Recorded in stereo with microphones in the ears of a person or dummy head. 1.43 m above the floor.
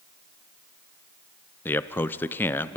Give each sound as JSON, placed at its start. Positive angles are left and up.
{"t": 1.6, "sound": "a man speaking", "side_deg": 10, "distance_m": 0.6}